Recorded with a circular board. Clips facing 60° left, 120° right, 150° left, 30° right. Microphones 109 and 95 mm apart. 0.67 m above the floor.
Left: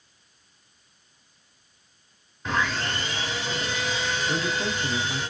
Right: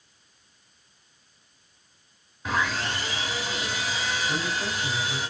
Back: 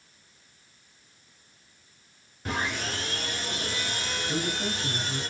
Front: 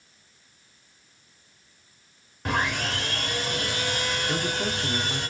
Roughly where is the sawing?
Ahead right.